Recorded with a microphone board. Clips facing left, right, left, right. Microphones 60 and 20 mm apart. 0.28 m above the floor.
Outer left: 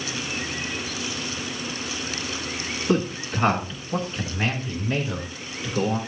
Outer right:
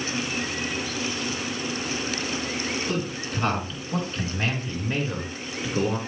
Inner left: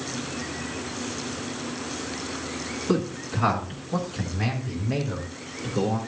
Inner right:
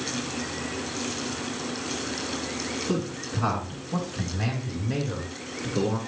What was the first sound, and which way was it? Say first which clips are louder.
A man speaking: outer left 5 dB, inner left 3 dB; 30° left (ahead or behind).